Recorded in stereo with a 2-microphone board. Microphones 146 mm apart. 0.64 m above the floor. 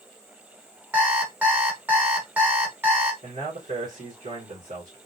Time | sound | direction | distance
0.9 | an alarm clock | 15° right (ahead or behind) | 1.1 m
3.2 | a man speaking | 65° right (ahead or behind) | 1.2 m